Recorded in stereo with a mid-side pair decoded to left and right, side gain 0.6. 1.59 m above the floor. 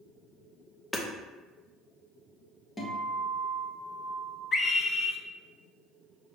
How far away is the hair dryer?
I don't hear a hair dryer.